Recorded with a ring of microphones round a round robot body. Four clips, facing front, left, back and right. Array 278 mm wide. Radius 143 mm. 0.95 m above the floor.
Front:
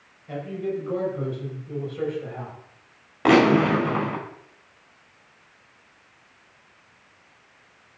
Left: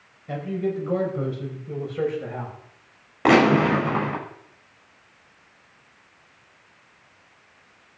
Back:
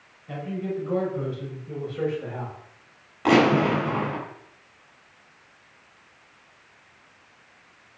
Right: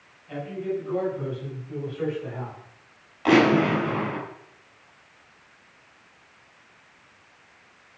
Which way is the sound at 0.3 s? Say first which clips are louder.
Left 3 dB, front 2 dB; 90° left.